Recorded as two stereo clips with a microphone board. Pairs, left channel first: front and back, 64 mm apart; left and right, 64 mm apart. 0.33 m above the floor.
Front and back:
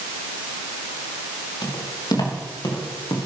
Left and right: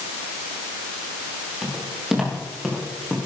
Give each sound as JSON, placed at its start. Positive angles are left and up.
{"t": 1.6, "sound": "footsteps", "azimuth_deg": -5, "distance_m": 7.0}